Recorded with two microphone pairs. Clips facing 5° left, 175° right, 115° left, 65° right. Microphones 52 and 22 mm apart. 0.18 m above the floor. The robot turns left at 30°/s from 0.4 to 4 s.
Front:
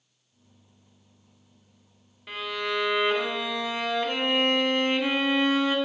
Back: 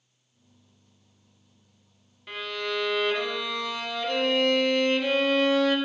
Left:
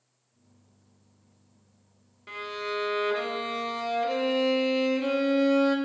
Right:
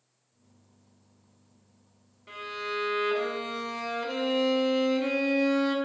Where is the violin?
85° left, 0.5 m; by 5.8 s 35° left, 0.5 m.